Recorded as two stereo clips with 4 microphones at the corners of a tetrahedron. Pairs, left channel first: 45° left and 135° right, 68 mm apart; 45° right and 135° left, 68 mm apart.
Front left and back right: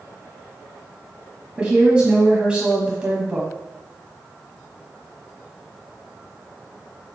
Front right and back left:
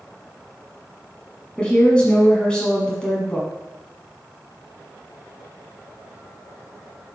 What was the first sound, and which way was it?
A woman speaking, 90° right.